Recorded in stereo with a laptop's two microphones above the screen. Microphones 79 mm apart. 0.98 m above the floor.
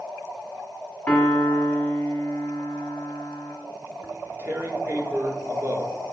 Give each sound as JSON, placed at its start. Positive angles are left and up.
{"t": 1.1, "sound": "a piano", "side_deg": 20, "distance_m": 1.4}
{"t": 4.0, "sound": "tearing paper", "side_deg": -30, "distance_m": 1.0}